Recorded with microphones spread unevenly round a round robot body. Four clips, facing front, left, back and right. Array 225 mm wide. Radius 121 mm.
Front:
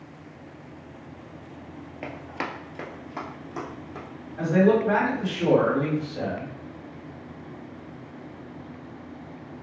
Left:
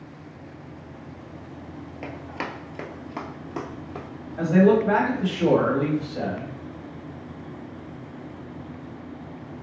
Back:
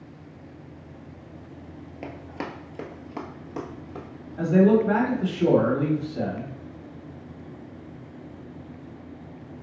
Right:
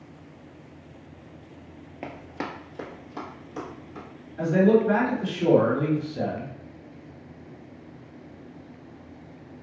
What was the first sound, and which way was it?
Running footsteps, 20° right.